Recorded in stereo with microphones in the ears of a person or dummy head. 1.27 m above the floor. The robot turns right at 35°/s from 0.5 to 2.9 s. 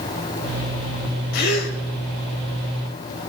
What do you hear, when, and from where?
1.3 s a gasp: 50° left (ahead or behind), 1.8 m; by 1.8 s 40° left (ahead or behind), 1.8 m